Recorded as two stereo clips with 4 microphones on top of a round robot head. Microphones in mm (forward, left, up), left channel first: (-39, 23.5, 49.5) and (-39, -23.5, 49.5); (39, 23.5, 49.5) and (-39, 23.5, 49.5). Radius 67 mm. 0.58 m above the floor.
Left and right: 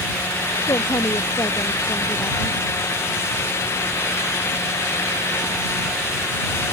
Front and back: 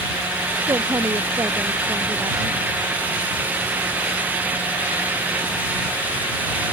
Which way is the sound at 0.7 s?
120° left.